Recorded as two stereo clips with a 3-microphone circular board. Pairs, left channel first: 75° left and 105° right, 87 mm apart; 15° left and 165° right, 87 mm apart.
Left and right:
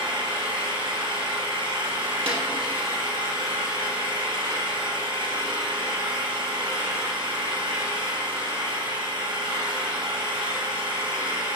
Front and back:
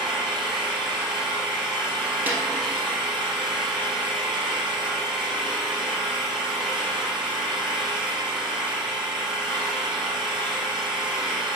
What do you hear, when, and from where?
0.0 s an engine running: 80° right, 2.5 m
2.3 s a snare drum: 95° right, 2 m